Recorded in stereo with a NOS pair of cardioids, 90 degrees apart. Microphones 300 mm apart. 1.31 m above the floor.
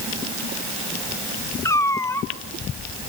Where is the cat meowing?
10° left, 1.8 m.